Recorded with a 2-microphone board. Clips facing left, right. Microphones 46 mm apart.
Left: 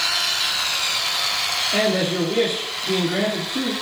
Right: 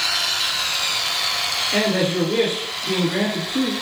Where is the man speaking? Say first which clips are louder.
Right 1 dB; 25° right (ahead or behind), 1.7 m.